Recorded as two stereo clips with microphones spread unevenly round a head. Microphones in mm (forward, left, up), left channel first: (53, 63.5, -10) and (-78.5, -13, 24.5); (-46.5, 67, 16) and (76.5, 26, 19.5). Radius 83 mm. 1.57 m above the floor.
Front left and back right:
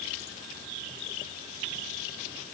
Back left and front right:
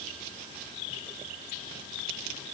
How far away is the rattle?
No rattle in this recording.